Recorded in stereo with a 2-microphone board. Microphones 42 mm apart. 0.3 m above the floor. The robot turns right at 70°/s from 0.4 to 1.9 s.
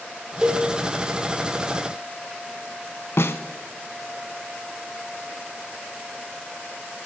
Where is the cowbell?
15° right (ahead or behind), 1.8 m; by 0.7 s 35° right (ahead or behind), 1.8 m.